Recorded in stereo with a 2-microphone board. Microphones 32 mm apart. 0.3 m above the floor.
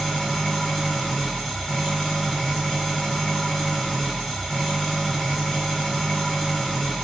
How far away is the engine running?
About 1.1 m.